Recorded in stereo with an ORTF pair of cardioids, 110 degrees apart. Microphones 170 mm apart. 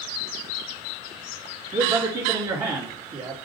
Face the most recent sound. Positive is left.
turn(degrees=-35)